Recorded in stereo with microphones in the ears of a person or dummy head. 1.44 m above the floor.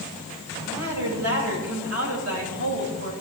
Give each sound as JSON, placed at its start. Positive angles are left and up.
{"t": 0.7, "sound": "a woman speaking", "side_deg": -90, "distance_m": 8.5}